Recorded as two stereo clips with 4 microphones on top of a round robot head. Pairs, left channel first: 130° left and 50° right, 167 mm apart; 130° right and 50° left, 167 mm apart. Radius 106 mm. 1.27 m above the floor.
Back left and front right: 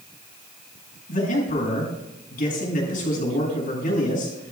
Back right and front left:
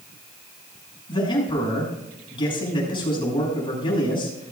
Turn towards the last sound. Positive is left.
turn(degrees=170)